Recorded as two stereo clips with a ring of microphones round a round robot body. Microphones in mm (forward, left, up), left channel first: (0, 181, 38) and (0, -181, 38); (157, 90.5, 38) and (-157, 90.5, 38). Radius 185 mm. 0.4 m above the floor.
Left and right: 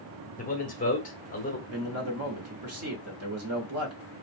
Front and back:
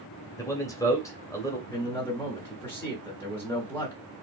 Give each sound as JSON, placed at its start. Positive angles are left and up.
{"t": 0.4, "sound": "a man speaking", "azimuth_deg": 65, "distance_m": 1.0}
{"t": 1.7, "sound": "a man speaking", "azimuth_deg": -80, "distance_m": 1.1}